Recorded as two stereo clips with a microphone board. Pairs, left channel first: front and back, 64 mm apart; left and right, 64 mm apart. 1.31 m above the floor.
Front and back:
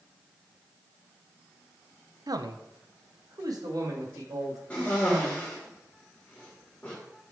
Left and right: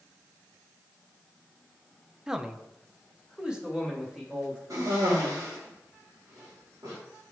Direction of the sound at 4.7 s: 70° right.